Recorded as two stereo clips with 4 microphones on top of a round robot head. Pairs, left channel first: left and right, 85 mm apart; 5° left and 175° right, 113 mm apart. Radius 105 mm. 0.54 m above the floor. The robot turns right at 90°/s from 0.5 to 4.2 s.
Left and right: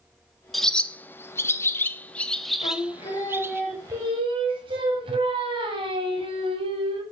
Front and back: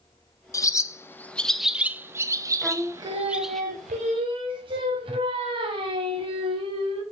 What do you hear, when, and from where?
0.5 s a bird: straight ahead, 0.5 m; by 3.6 s 85° right, 0.5 m
2.6 s singing: 90° left, 1.0 m; by 7.0 s 125° right, 1.0 m